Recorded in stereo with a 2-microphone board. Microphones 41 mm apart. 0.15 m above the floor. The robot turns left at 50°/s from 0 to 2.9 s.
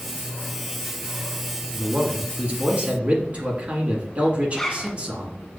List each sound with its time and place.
1.7 s a man speaking: 45° right, 1.6 m; by 5.4 s 105° right, 1.6 m
4.5 s a zipper: 10° left (ahead or behind), 0.6 m